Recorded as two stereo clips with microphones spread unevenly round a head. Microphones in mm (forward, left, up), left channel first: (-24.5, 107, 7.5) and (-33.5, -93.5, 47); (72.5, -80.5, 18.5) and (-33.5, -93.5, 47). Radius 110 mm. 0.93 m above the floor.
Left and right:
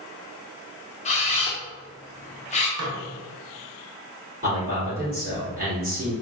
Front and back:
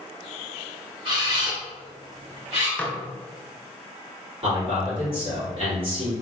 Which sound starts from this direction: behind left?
A camera shutter, at 1.1 s.